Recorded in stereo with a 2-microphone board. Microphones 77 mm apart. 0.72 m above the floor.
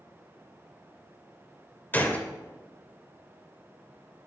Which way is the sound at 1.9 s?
25° left (ahead or behind).